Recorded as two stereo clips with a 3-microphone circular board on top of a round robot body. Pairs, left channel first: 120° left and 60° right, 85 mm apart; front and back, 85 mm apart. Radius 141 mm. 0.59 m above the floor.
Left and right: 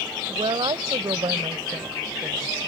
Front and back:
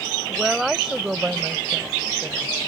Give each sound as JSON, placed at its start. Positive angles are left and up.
{"t": 0.3, "sound": "a woman speaking", "azimuth_deg": -90}